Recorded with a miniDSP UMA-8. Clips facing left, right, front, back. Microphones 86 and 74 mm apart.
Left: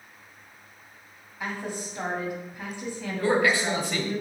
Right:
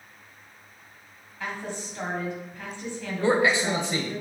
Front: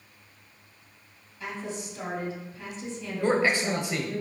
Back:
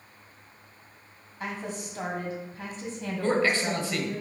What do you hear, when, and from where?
1.4 s a woman speaking: 165° left, 2 m
3.2 s a man speaking: 50° right, 1.1 m